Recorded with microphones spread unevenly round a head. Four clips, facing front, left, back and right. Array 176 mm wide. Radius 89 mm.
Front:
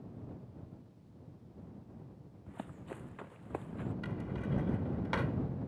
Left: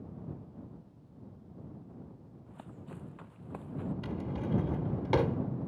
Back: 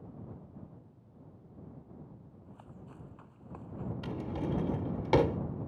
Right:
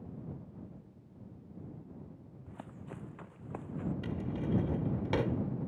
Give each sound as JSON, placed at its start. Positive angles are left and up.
{"t": 2.5, "sound": "running footsteps", "azimuth_deg": -25}
{"t": 4.0, "sound": "a drawer", "azimuth_deg": 175}